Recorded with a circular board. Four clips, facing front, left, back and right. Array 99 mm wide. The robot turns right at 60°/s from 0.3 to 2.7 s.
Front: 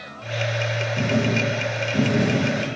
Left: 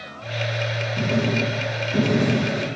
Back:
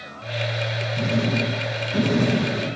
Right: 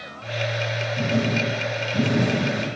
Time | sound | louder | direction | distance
1.0 | writing | left 1 dB, front 1 dB | 45° left | 2.5 m